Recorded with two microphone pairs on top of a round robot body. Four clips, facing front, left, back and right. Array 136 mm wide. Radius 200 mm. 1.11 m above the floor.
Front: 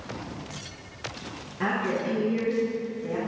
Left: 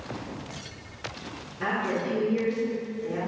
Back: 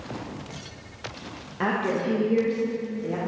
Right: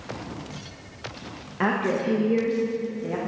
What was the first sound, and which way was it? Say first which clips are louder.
A woman speaking: right 4 dB, back 2 dB; 115° right.